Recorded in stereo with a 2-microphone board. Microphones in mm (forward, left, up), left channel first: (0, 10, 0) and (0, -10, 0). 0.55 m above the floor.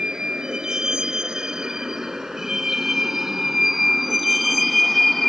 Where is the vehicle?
35° right (ahead or behind); by 5.3 s 10° left (ahead or behind).